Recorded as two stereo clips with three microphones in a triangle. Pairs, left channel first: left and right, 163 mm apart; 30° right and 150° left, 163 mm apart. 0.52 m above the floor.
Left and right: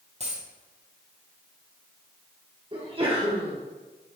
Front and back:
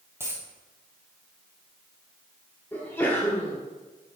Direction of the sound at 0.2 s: 135° right.